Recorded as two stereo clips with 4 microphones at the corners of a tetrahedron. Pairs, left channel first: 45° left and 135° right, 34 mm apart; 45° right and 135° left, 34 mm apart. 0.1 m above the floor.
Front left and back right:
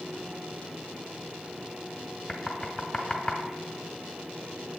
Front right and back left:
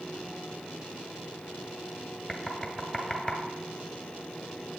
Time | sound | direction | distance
2.3 | knocking | 20° left | 1.0 m